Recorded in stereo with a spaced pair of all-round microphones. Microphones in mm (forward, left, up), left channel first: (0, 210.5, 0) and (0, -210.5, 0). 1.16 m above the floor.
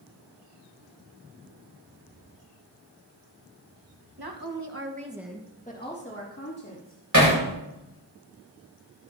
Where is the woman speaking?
65° right (ahead or behind), 1.6 m; by 7.0 s 40° left (ahead or behind), 3.5 m.